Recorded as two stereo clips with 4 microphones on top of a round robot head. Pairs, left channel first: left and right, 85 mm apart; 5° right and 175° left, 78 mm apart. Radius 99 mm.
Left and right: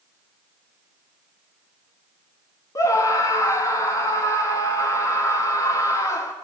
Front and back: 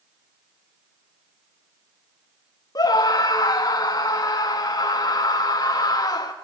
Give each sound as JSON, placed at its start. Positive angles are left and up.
{"t": 2.8, "sound": "a scream", "azimuth_deg": 35, "distance_m": 1.2}